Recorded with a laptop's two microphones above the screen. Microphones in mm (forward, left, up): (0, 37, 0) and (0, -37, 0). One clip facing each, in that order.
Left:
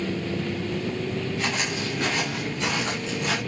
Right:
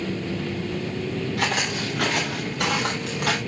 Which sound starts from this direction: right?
Footsteps, at 1.4 s.